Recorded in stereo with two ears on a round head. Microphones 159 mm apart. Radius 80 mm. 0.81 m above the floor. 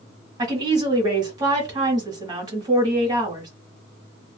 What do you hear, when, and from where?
0.4 s a woman speaking: 25° right (ahead or behind), 1.5 m